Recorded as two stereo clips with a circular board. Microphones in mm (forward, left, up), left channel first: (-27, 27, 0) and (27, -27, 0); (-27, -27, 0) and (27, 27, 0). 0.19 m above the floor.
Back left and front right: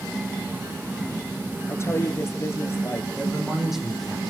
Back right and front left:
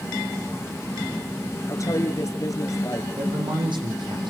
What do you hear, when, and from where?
1.7 s a woman speaking: 175° right, 3 m
3.2 s a man speaking: 40° left, 9 m